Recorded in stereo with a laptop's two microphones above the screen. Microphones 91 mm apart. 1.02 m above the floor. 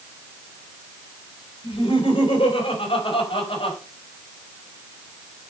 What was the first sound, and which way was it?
Laughter, 80° left.